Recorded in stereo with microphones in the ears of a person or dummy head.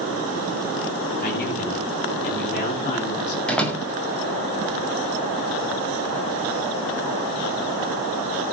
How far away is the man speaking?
About 9.5 m.